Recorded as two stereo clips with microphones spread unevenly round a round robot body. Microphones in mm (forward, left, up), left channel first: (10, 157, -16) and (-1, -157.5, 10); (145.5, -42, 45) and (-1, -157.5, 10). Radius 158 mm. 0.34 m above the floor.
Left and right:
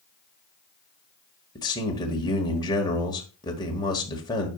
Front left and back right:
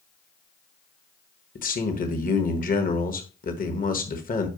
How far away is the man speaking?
About 1.3 m.